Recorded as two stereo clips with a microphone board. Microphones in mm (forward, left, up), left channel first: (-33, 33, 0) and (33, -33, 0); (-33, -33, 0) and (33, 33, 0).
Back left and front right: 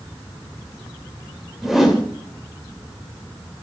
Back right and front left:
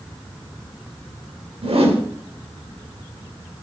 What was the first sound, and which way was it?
A whoosh, 45° left.